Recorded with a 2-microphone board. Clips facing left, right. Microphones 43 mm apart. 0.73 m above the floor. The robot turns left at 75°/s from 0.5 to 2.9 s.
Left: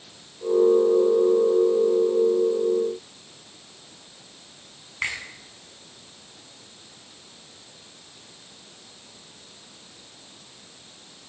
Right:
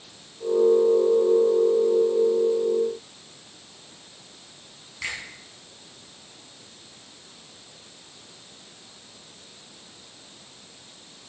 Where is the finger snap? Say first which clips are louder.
Left 4 dB; 40° left (ahead or behind), 7 m.